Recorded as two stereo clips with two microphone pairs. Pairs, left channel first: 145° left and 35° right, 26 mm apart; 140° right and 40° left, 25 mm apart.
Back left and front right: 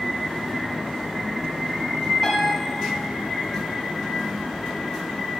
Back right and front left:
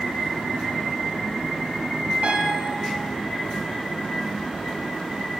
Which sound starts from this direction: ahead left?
A piano, at 2.2 s.